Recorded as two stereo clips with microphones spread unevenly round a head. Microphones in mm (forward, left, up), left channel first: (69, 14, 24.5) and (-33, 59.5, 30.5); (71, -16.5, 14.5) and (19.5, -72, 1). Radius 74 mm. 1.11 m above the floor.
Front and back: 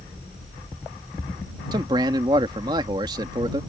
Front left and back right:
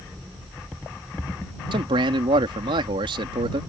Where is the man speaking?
140° right.